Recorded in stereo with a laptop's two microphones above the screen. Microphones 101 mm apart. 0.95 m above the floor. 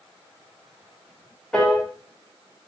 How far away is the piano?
About 4 m.